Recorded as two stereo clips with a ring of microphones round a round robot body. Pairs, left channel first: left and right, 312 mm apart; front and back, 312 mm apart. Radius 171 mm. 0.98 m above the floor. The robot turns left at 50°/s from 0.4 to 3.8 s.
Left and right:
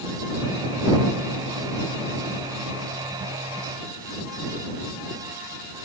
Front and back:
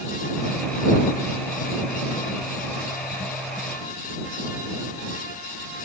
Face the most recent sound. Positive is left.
No sound to turn to.